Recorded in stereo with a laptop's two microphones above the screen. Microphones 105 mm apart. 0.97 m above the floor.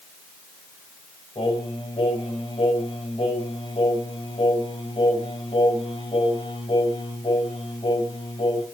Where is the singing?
60° left (ahead or behind), 3 m.